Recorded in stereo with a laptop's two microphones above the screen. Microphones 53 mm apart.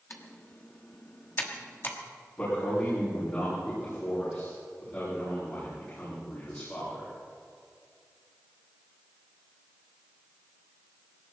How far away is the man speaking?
About 7.5 m.